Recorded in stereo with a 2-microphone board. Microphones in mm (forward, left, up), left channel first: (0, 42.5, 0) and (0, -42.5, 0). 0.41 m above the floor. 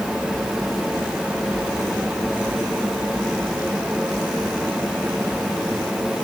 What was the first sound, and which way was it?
Only background noise.